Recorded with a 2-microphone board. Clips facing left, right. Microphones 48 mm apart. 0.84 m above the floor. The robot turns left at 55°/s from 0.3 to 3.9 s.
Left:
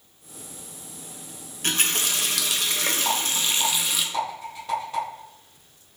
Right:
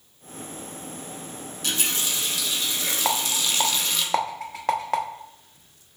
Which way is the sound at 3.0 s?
35° right (ahead or behind).